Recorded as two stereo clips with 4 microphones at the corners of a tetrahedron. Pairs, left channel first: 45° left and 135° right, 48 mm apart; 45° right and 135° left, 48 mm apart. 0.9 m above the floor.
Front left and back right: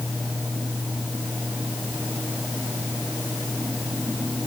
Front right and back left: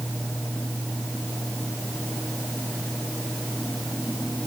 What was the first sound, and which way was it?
Only background noise.